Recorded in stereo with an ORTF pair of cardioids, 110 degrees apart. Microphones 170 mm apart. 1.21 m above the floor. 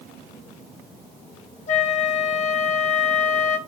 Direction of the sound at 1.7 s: 45° left.